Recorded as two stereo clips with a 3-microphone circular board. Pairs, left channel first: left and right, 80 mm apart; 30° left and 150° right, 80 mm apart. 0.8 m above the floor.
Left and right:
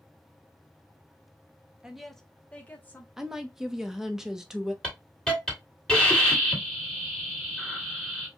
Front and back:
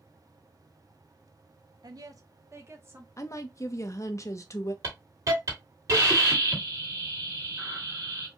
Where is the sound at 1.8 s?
170° right, 0.8 m; by 3.1 s 155° left, 1.3 m.